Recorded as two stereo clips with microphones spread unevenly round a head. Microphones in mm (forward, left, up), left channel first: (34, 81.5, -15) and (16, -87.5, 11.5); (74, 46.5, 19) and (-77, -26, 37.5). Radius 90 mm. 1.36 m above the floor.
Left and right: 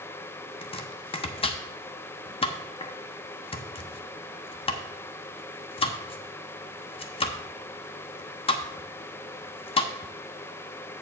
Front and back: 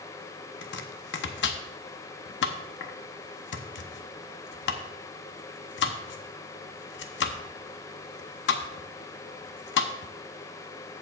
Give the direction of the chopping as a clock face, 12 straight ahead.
11 o'clock.